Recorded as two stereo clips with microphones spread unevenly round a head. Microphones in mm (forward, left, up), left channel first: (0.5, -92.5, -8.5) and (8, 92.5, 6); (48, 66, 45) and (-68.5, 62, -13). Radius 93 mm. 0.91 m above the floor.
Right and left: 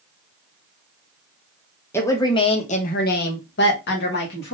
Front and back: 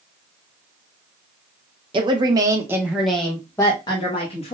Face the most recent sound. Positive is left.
turn(degrees=-60)